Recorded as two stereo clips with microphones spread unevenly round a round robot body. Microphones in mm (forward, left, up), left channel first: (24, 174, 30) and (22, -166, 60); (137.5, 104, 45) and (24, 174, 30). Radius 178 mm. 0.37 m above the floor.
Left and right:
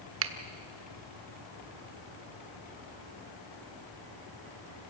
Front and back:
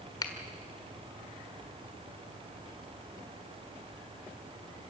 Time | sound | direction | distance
0.2 | a finger snap | 85° right | 1.4 m